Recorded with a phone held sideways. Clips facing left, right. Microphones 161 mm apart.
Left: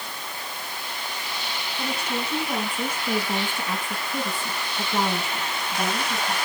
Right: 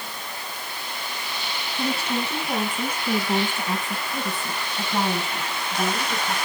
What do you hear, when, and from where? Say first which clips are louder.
1.8 s a woman speaking: right 4 dB; 30° right (ahead or behind), 9 m; by 6.3 s 10° right (ahead or behind), 7.5 m